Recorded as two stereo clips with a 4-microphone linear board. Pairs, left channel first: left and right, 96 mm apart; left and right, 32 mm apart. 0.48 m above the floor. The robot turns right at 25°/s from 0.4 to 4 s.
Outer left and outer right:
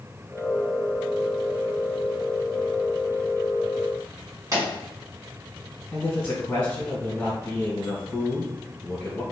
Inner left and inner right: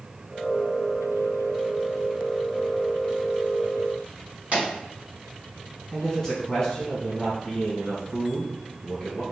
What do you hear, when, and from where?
4.5 s a pop: 35° right (ahead or behind), 1.9 m
5.9 s a man speaking: 15° left (ahead or behind), 1.8 m